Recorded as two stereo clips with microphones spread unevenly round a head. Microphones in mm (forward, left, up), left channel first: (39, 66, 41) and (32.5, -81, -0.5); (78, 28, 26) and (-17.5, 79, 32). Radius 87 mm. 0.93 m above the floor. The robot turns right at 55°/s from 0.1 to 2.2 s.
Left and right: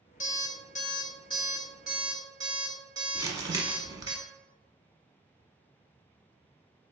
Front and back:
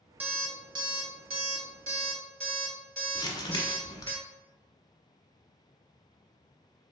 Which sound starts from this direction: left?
An alarm clock, at 0.2 s.